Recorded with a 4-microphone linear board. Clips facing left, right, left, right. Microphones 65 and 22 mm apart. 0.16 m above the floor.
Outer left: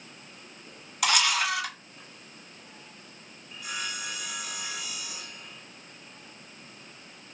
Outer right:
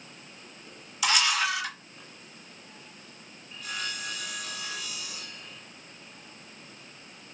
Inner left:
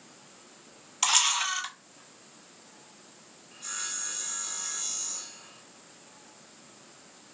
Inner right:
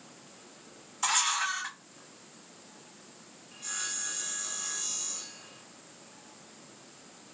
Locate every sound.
1.0 s a camera shutter: 60° left (ahead or behind), 0.9 m
3.5 s sawing: 15° left (ahead or behind), 0.9 m